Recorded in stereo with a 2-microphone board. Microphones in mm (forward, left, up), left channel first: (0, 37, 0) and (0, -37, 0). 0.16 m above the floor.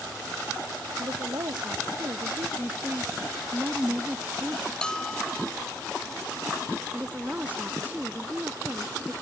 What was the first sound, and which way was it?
A woman speaking, 70° right (ahead or behind).